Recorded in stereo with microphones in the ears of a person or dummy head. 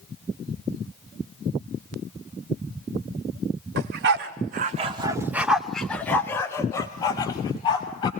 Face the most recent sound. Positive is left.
turn(degrees=25)  # may be behind; listen again after turning